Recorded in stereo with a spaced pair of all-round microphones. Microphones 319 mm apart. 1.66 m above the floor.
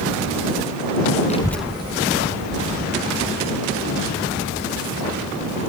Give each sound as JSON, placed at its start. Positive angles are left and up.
{"t": 1.3, "sound": "a child speaking", "side_deg": 20}